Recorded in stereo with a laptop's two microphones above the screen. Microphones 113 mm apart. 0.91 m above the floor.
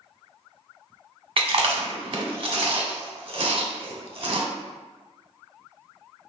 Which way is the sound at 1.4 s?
50° right (ahead or behind).